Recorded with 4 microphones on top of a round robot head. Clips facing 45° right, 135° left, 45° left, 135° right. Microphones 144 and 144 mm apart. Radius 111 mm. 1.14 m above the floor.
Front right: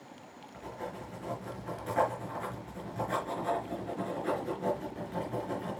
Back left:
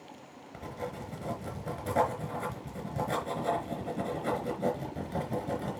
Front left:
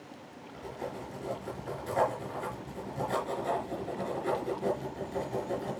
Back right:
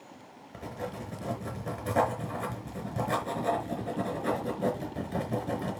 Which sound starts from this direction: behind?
Writing, at 0.5 s.